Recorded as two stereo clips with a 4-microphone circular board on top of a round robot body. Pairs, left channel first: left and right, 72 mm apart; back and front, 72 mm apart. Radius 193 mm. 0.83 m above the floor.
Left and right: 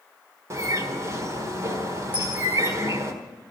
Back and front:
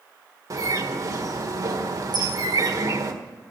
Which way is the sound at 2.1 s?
15° right.